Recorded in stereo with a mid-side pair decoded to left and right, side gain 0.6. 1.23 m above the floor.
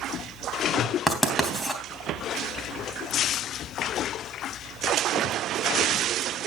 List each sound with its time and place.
1.1 s writing: 10° left, 3 m